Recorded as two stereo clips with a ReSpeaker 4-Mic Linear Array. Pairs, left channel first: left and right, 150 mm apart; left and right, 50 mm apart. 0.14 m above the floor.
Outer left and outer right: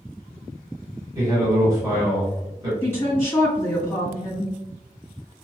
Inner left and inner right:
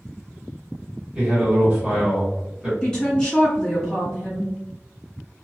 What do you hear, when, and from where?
1.1 s a man speaking: 20° right (ahead or behind), 1.5 m
2.8 s a woman speaking: 15° left (ahead or behind), 1.6 m